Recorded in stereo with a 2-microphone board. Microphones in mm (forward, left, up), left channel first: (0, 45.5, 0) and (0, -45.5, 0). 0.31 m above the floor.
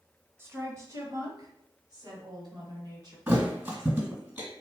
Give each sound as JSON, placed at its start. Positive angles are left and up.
{"t": 0.4, "sound": "a woman speaking", "side_deg": -30, "distance_m": 1.3}
{"t": 3.3, "sound": "a thud", "side_deg": -20, "distance_m": 1.7}